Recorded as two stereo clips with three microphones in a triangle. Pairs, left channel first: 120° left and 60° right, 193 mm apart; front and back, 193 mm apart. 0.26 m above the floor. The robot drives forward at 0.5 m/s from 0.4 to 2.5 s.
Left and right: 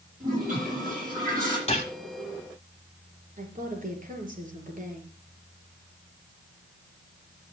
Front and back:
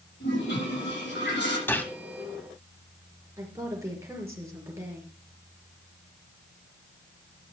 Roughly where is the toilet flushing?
Ahead.